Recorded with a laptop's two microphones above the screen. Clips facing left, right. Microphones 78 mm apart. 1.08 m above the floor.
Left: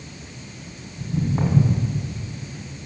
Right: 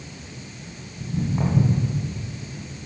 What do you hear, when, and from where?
1.0 s footsteps: 20° left (ahead or behind), 2.5 m